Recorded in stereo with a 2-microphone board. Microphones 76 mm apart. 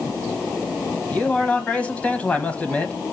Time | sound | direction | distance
1.1 | a man speaking | 20° left (ahead or behind) | 1.0 m